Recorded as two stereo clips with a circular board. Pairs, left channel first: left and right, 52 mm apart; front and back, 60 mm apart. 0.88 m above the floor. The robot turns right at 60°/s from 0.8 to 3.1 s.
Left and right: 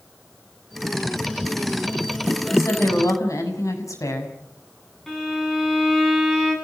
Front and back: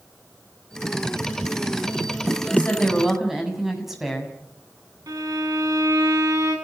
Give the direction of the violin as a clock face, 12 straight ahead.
6 o'clock.